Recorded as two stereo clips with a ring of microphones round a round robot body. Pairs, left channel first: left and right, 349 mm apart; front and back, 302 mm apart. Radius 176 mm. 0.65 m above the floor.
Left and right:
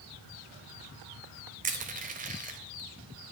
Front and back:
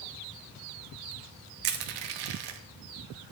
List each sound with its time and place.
1.6 s crushing: 160° right, 1.2 m